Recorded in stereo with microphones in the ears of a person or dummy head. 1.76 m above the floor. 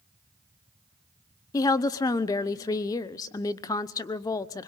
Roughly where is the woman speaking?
Left.